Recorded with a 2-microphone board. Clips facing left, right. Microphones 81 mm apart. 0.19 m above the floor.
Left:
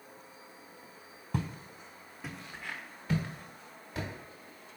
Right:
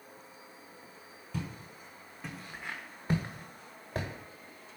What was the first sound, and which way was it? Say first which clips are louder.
Footsteps: left 3 dB; 45° left (ahead or behind).